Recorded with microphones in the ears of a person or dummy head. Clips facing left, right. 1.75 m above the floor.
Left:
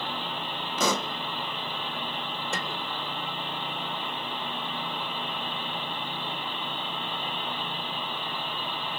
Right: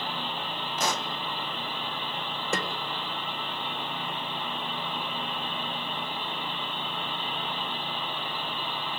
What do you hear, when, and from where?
0.8 s a pop: 85° left, 0.7 m
2.5 s a snare drum: 55° right (ahead or behind), 3 m